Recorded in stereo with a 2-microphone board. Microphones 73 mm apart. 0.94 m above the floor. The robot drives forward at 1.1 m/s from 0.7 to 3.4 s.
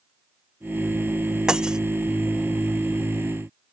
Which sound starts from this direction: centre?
Breaking glass, at 1.5 s.